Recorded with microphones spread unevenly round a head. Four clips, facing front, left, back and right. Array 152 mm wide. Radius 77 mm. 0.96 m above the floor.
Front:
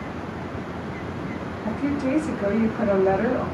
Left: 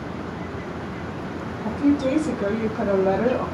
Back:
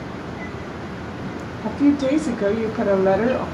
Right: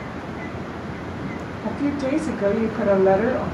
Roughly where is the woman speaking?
Behind.